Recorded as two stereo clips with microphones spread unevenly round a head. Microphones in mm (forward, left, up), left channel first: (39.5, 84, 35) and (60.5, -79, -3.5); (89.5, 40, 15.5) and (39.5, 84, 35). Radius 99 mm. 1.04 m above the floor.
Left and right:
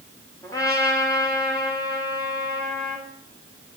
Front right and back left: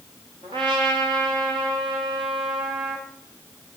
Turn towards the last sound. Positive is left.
turn(degrees=170)